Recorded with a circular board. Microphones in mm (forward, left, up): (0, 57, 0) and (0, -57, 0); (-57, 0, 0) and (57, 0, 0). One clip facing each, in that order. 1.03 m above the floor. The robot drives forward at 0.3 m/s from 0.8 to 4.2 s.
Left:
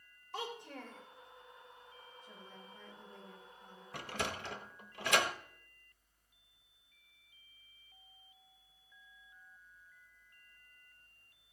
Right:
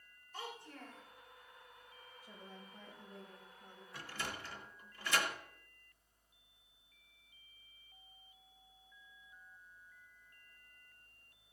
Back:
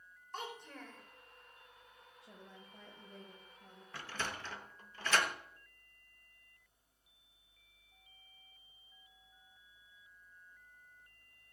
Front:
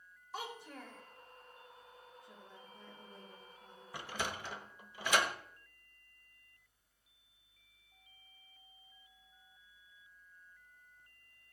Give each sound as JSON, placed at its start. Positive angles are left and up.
{"t": 0.3, "sound": "a child speaking", "azimuth_deg": 85, "distance_m": 3.0}
{"t": 2.2, "sound": "a woman speaking", "azimuth_deg": -170, "distance_m": 4.5}
{"t": 3.9, "sound": "a sliding door", "azimuth_deg": 70, "distance_m": 1.0}